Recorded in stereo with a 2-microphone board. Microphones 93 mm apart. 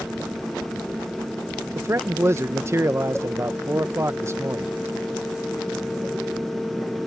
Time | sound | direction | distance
1.8 | a man speaking | 30° right (ahead or behind) | ?